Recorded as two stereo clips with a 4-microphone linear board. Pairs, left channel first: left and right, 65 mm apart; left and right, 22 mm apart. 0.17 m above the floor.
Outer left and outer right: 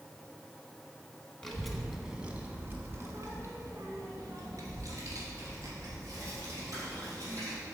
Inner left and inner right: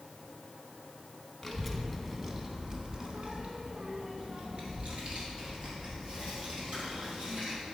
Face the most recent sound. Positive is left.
turn(degrees=-60)  # may be behind; listen again after turning